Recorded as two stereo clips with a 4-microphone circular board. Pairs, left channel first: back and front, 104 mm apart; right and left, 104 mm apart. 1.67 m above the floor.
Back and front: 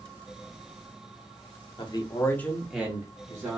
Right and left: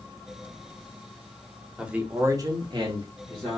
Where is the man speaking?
170° left, 0.9 m; by 3.6 s 55° left, 1.4 m.